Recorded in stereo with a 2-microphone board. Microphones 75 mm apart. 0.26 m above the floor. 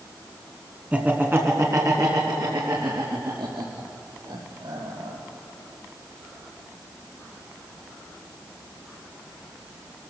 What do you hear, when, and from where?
0.9 s laughter: 20° right (ahead or behind), 2.5 m; by 5.2 s 80° right, 6.5 m